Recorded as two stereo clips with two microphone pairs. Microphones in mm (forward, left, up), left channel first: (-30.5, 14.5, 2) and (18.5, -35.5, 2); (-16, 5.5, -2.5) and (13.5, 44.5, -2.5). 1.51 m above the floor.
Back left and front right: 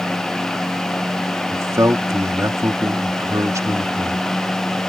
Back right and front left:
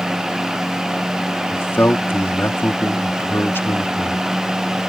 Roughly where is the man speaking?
Right.